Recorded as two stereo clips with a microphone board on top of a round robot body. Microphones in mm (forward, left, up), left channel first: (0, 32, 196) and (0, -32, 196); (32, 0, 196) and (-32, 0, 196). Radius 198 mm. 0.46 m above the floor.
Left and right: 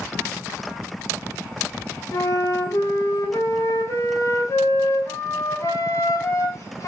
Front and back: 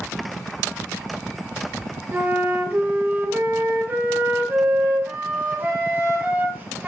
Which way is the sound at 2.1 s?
120° left.